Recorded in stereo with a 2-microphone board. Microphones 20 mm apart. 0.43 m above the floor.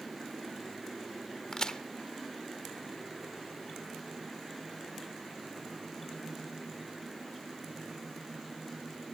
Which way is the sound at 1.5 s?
35° left (ahead or behind).